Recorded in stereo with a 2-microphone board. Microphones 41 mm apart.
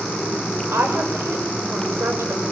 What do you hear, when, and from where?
0.7 s a woman speaking: 80° right, 6 m; by 2.5 s 70° right (ahead or behind), 6.5 m